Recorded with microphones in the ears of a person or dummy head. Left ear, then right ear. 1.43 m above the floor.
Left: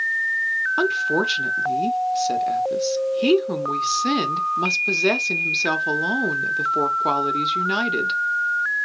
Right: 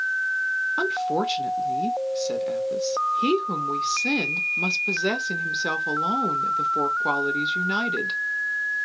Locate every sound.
0.8 s a woman speaking: 5° left (ahead or behind), 0.5 m